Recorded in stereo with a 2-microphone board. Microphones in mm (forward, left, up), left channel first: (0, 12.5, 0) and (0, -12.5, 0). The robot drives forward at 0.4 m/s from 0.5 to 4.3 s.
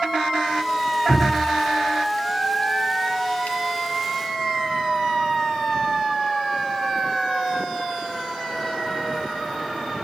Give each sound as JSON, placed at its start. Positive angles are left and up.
{"t": 1.1, "sound": "dripping", "side_deg": 40, "distance_m": 1.4}